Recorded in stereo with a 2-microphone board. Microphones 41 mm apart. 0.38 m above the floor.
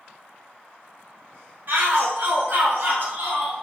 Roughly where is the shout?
Right.